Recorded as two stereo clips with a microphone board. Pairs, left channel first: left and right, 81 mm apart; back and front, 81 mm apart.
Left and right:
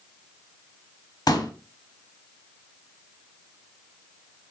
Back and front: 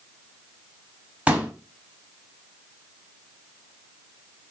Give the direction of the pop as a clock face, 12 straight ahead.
10 o'clock.